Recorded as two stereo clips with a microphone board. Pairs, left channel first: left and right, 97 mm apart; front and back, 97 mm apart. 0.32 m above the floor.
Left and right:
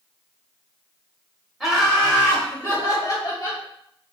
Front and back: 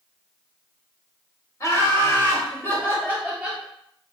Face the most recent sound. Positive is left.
turn(degrees=80)